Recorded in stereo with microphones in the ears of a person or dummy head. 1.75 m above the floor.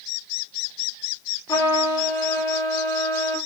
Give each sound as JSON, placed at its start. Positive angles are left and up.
{"t": 1.5, "sound": "a trumpet", "side_deg": 15, "distance_m": 0.7}